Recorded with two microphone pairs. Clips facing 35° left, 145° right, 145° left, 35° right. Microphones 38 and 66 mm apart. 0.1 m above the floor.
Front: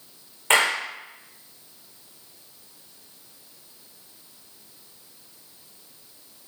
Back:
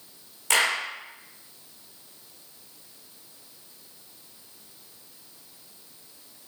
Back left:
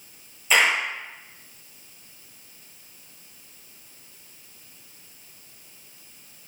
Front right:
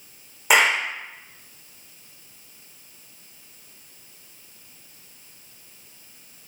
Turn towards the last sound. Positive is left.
turn(degrees=-20)